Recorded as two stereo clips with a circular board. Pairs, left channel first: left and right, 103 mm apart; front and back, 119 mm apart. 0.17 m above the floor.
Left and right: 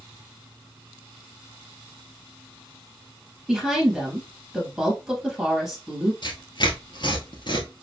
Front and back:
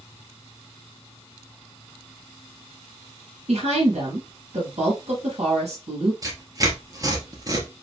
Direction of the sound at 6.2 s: 125° left.